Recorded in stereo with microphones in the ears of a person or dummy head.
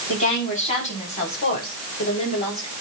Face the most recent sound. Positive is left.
turn(degrees=40)  # may be behind; listen again after turning